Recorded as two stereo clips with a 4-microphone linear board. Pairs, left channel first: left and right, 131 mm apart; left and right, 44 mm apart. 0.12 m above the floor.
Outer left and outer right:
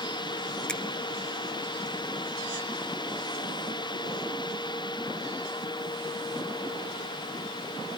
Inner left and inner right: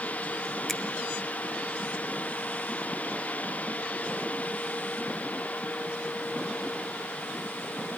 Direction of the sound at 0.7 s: 5° left (ahead or behind).